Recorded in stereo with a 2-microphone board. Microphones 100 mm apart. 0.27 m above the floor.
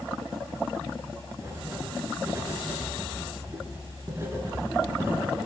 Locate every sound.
1.4 s writing: 30° right (ahead or behind), 4 m